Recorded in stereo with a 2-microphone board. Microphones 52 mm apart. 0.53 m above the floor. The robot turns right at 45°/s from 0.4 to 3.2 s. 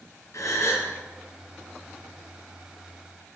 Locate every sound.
0.3 s a gasp: 70° left (ahead or behind), 5 m; by 0.9 s 50° left (ahead or behind), 5 m